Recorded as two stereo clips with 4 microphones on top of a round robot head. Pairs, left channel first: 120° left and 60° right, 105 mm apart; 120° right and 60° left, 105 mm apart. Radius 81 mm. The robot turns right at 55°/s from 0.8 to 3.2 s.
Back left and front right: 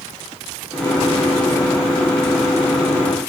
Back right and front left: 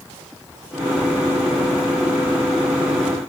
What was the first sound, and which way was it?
Only background noise.